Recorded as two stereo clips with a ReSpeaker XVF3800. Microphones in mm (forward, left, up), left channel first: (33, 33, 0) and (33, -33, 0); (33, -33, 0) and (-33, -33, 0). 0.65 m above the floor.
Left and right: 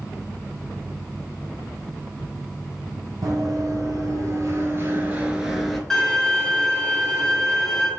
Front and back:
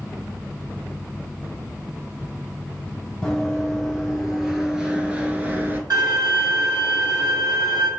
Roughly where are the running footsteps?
Right.